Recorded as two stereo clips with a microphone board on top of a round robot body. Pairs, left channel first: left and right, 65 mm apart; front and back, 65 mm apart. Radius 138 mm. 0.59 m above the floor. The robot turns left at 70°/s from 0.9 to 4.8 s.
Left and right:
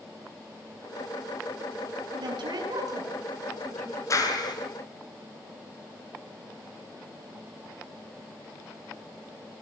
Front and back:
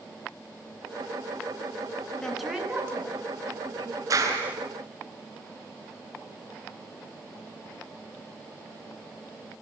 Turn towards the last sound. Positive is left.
turn(degrees=90)